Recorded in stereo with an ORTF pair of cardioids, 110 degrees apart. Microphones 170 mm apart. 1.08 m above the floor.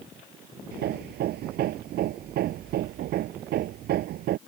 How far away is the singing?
I don't hear singing.